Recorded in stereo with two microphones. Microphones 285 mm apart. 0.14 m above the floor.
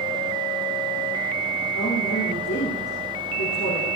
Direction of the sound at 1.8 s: 65° left (ahead or behind).